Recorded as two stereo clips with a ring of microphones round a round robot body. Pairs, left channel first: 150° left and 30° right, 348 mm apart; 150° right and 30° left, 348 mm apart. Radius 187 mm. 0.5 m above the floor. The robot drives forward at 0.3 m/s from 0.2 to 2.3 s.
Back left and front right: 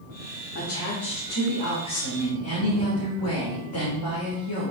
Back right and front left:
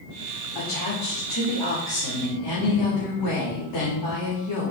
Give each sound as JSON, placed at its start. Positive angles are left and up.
{"t": 0.6, "sound": "a woman speaking", "azimuth_deg": -165, "distance_m": 1.6}